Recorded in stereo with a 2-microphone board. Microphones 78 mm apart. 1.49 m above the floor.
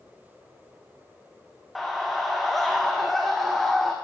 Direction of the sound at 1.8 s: Centre (ahead or behind).